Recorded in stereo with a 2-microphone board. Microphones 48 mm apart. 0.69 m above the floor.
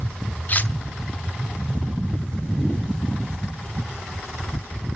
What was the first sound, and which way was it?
Cutlery clinking, 40° left (ahead or behind).